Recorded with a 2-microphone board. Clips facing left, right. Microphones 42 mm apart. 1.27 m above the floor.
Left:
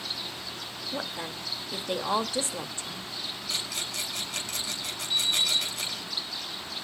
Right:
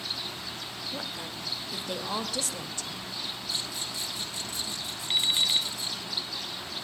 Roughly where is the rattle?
Left.